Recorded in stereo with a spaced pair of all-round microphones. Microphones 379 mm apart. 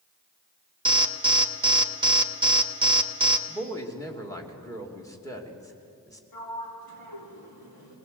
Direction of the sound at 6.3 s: 75° left (ahead or behind).